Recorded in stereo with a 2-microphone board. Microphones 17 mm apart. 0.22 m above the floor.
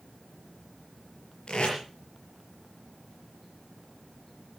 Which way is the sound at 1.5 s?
65° left (ahead or behind).